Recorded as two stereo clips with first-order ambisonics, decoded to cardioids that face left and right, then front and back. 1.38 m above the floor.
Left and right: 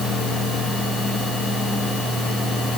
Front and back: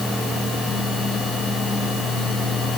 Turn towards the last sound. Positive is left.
No sound to turn to.